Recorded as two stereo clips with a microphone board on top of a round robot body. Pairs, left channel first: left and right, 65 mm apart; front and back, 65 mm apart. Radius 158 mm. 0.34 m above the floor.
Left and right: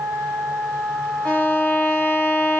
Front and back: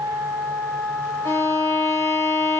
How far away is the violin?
About 1.1 m.